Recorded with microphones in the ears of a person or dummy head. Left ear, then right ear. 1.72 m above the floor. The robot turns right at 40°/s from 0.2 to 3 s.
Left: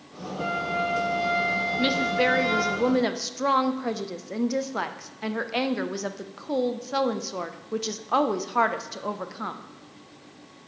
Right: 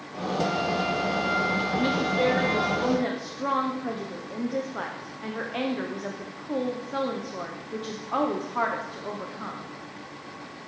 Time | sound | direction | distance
0.4 | a flute | straight ahead | 0.8 m
1.8 | a woman speaking | 35° left | 0.7 m